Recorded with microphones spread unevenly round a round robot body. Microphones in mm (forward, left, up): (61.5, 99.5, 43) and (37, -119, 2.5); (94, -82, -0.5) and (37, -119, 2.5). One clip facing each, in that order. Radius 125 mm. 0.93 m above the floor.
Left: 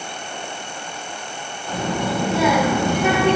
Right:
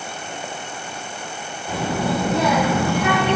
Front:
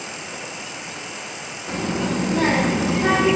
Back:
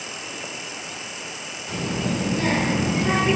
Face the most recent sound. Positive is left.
turn(degrees=25)